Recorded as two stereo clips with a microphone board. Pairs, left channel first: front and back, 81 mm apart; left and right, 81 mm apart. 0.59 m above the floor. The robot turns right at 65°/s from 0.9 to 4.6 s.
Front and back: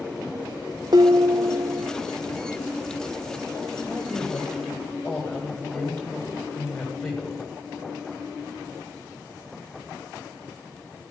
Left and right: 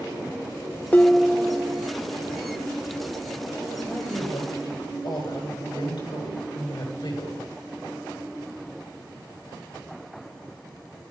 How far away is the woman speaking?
About 10 m.